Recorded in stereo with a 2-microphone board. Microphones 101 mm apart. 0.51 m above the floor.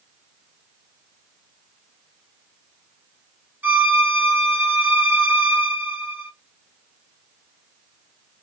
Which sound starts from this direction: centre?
A violin, at 3.6 s.